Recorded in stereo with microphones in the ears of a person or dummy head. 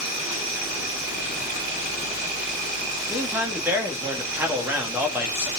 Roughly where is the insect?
Right.